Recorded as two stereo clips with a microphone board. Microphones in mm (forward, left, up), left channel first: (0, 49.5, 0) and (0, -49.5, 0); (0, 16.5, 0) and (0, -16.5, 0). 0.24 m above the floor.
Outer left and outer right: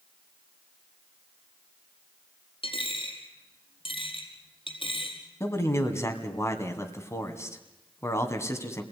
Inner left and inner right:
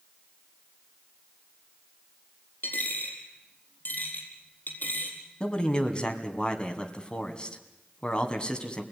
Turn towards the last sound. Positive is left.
turn(degrees=30)  # may be behind; listen again after turning